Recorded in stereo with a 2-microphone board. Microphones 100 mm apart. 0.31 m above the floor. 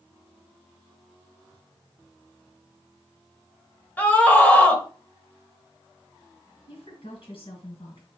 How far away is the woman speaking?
About 3.5 m.